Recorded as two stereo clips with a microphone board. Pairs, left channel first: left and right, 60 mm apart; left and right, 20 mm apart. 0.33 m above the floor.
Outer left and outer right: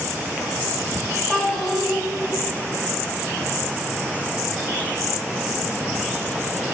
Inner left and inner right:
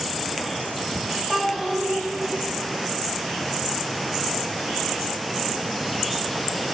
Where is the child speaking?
10° left (ahead or behind), 1.0 m.